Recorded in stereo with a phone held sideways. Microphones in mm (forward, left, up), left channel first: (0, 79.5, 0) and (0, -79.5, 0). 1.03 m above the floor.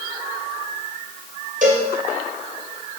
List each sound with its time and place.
1.6 s a cowbell: 55° right (ahead or behind), 4.5 m